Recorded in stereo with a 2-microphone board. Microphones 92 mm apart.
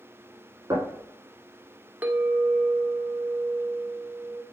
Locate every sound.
0.7 s knocking: 40° right (ahead or behind), 3 m
2.0 s a clink: 20° right (ahead or behind), 0.7 m